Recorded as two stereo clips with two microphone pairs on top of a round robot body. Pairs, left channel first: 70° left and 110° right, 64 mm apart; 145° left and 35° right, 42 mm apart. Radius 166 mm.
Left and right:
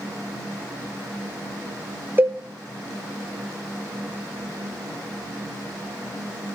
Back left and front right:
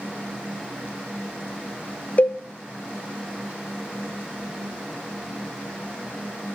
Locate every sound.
2.2 s a cowbell: 170° right, 1.0 m